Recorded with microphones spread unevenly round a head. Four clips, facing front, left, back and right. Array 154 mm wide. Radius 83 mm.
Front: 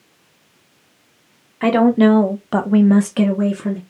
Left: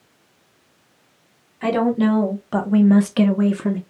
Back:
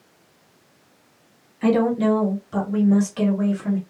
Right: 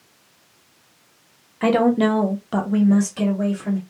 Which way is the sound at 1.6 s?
30° right.